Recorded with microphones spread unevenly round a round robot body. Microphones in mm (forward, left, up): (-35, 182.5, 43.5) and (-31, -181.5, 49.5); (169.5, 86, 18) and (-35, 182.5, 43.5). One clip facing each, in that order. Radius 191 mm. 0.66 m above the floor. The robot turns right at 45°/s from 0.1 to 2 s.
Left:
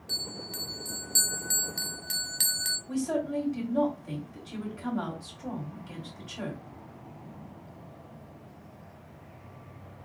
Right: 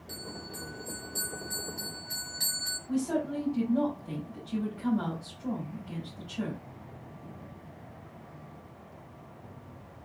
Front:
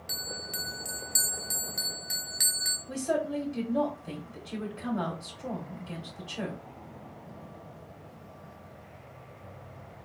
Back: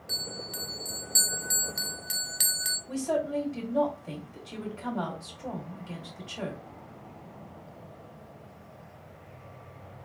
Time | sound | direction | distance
0.1 | a bell | 15° left | 0.7 m
2.9 | a woman speaking | 55° left | 2.5 m